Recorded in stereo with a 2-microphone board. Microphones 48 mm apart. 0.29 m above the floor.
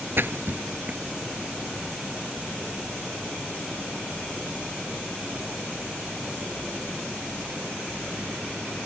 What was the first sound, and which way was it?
A splash, 50° right (ahead or behind).